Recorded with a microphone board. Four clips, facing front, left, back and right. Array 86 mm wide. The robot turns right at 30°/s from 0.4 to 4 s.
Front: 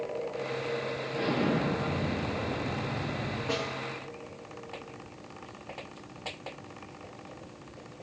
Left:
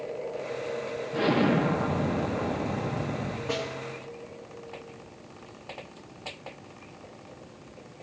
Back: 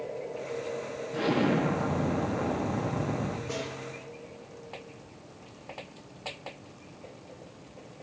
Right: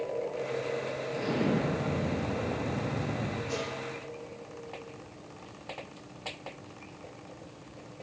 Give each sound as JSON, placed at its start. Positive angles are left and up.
{"t": 1.1, "sound": "an explosion", "azimuth_deg": 105, "distance_m": 0.6}
{"t": 3.5, "sound": "a snare drum", "azimuth_deg": 35, "distance_m": 1.9}